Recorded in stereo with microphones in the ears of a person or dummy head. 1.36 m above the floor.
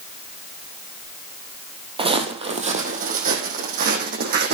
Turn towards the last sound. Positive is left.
turn(degrees=-50)  # may be behind; listen again after turning